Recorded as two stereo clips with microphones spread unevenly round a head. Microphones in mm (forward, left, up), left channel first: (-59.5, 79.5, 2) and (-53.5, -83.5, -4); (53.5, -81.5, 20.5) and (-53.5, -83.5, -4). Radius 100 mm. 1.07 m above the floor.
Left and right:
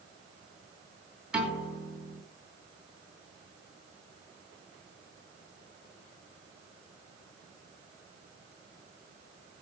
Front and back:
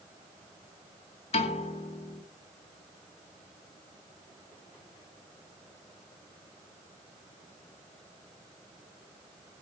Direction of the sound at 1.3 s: Straight ahead.